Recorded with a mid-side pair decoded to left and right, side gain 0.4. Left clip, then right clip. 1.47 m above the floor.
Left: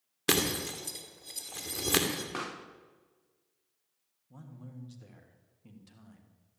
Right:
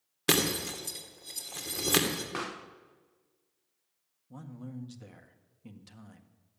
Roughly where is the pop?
Ahead.